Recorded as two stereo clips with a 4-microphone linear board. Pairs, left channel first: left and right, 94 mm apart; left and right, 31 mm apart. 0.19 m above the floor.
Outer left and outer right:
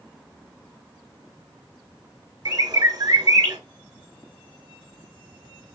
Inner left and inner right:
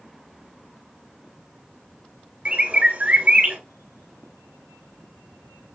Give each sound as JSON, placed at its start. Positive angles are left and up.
{"t": 2.5, "sound": "a bird", "side_deg": -45, "distance_m": 0.9}